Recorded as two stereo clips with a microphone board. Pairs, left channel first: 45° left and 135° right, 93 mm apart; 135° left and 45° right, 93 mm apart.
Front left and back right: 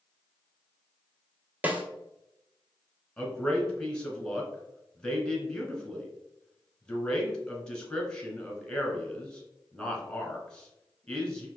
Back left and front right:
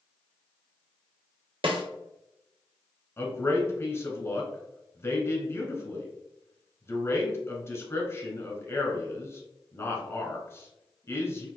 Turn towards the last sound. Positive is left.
turn(degrees=115)